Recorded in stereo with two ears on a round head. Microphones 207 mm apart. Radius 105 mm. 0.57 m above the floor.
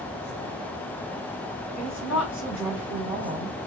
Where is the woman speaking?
5° right (ahead or behind), 3 m.